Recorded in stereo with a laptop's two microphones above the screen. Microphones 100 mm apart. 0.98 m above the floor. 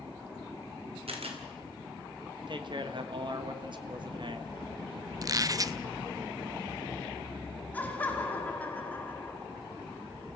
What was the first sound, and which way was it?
A camera shutter, 80° right.